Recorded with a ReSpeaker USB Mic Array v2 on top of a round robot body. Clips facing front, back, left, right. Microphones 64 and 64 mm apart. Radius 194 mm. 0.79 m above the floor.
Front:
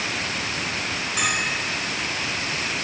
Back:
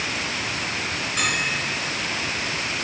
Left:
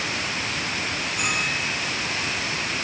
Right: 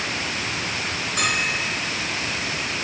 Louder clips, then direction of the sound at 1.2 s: Even, right 3 dB; 80° right.